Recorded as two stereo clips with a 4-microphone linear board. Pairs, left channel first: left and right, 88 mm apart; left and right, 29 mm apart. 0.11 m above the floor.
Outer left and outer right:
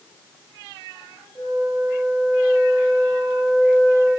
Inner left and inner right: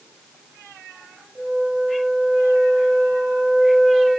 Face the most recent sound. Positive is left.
turn(degrees=0)  # may be behind; listen again after turning